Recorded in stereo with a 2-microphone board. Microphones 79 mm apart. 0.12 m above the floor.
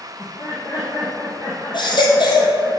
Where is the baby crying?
70° left (ahead or behind), 2 m.